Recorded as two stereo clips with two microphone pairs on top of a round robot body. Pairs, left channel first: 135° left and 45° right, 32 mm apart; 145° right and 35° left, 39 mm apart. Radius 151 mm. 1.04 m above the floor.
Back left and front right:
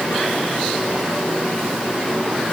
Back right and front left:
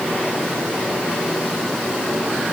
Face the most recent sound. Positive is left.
No sound to turn to.